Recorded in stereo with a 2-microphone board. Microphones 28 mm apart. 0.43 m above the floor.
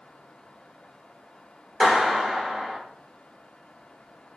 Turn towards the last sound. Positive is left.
turn(degrees=-35)  # may be behind; listen again after turning